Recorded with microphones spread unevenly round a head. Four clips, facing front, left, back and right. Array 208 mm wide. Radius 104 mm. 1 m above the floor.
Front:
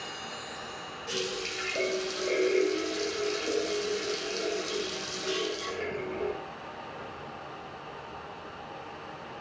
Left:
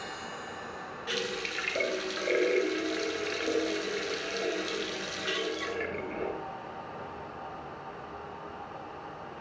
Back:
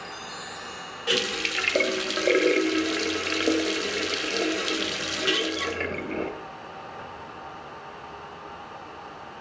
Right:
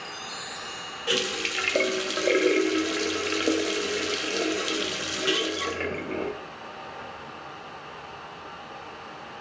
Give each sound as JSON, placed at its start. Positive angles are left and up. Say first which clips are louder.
{"t": 1.1, "sound": "a running tap", "louder": "right 6 dB, back 6 dB", "azimuth_deg": -135, "distance_m": 0.7}